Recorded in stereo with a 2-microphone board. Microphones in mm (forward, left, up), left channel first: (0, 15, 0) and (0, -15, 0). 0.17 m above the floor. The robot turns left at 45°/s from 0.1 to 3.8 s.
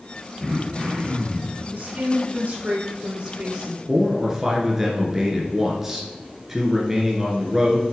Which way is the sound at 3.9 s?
15° right (ahead or behind).